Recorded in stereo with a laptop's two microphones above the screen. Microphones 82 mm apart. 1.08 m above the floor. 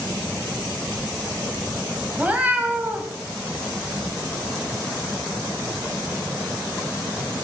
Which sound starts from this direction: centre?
A cat meowing, at 2.2 s.